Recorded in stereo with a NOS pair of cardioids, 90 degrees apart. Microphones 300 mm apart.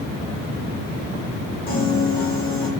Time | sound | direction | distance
1.7 | a piano | 35° left | 1.2 m